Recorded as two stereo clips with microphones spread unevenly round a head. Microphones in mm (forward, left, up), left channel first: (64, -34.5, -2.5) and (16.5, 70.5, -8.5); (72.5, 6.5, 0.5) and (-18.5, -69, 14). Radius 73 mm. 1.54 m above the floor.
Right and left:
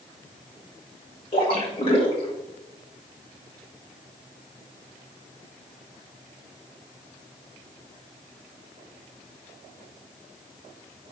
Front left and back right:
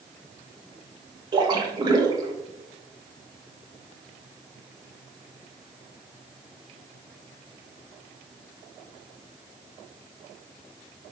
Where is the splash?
100° right, 2 m.